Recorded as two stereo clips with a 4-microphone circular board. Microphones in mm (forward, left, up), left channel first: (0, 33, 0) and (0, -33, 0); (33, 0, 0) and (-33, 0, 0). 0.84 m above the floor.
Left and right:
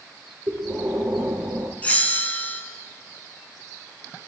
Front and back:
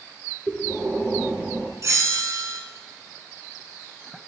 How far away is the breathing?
About 1.6 m.